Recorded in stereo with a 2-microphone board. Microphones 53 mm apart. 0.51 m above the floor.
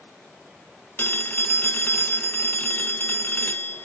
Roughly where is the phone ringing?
Left.